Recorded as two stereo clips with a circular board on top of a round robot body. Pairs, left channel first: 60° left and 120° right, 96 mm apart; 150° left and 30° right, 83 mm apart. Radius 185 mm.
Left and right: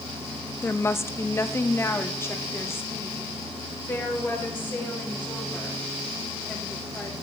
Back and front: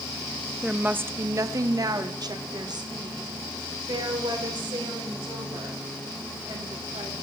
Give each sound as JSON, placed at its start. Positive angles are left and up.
{"t": 0.6, "sound": "a woman speaking", "azimuth_deg": 45, "distance_m": 0.7}